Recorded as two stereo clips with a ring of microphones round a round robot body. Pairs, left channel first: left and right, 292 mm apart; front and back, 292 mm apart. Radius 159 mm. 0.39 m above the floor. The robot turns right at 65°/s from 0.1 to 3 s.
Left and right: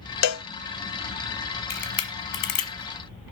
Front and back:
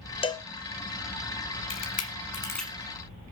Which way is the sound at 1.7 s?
30° left.